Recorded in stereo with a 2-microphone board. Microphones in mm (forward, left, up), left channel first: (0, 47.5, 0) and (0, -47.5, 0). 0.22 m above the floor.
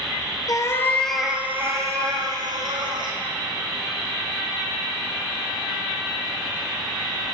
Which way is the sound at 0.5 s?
45° left (ahead or behind).